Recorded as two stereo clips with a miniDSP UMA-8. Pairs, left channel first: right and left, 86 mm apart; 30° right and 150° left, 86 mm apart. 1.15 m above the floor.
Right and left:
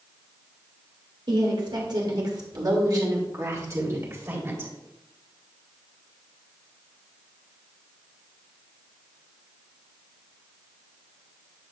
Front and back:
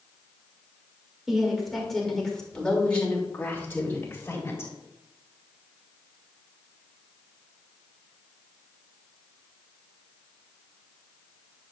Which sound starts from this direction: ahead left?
A woman speaking, at 1.3 s.